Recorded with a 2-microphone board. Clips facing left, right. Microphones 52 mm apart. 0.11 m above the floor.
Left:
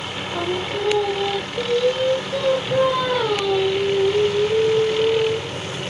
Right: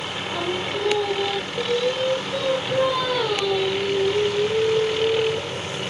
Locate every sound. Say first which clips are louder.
0.3 s singing: left 2 dB; 10° left (ahead or behind)